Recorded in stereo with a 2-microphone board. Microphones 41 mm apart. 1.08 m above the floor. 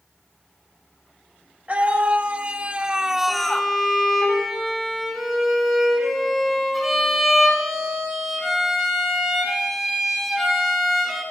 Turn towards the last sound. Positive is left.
turn(degrees=0)  # may be behind; listen again after turning